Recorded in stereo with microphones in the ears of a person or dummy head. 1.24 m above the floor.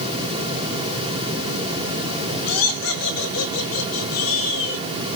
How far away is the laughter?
About 6.5 m.